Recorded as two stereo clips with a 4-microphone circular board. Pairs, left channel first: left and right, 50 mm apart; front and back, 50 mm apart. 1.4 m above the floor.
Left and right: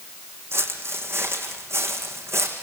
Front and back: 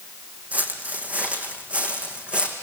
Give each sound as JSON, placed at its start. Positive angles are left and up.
{"t": 0.5, "sound": "footsteps", "azimuth_deg": -120, "distance_m": 4.5}